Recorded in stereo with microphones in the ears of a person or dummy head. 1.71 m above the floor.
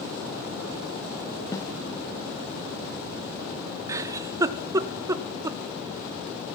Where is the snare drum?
15° left (ahead or behind), 1.0 m.